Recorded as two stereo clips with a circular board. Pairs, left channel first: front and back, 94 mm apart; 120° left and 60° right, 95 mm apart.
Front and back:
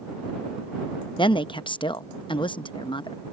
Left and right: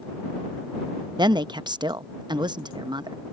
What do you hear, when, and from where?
1.2 s a woman speaking: 25° right